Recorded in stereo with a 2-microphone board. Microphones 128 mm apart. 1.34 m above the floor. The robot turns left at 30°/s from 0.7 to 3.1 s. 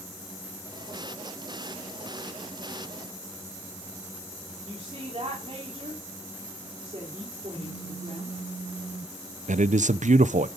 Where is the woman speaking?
45° right (ahead or behind), 3.5 m.